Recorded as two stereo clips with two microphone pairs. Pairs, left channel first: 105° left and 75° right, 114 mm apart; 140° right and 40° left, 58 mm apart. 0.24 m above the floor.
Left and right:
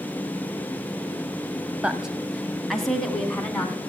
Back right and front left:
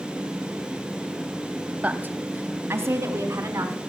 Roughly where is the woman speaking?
Ahead.